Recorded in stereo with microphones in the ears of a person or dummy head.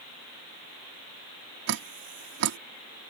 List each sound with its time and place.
1.7 s dripping: 55° right (ahead or behind)